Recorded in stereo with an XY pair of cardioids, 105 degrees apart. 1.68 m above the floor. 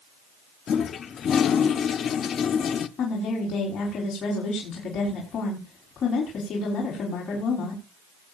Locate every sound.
0.7 s a toilet flushing: 55° left, 0.8 m
3.0 s a woman speaking: 55° left, 4.5 m